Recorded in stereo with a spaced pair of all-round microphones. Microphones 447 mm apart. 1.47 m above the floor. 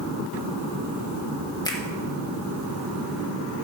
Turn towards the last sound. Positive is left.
turn(degrees=10)  # may be behind; listen again after turning